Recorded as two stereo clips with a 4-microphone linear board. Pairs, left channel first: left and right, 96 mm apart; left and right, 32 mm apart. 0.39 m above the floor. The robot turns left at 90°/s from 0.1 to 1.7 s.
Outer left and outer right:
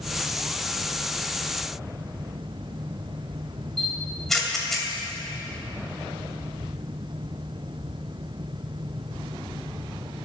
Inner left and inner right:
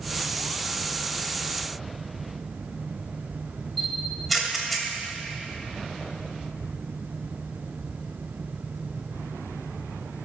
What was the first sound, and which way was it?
A camera shutter, centre (ahead or behind).